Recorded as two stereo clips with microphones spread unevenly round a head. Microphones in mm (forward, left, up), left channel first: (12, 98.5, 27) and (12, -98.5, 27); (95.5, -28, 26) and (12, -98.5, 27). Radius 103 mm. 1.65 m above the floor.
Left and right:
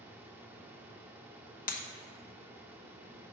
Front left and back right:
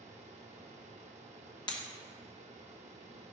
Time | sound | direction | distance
0.0 | a fan | 170° right | 0.8 m
1.7 | breaking glass | 75° left | 0.9 m